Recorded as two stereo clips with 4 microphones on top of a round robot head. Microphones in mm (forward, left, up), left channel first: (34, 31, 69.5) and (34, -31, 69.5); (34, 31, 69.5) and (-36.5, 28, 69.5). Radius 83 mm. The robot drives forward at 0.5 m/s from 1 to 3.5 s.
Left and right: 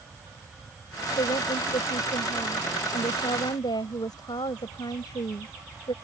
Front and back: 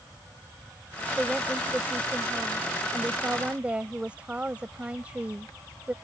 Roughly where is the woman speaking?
Left.